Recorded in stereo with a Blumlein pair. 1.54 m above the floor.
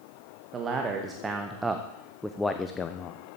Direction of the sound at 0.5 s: 20° right.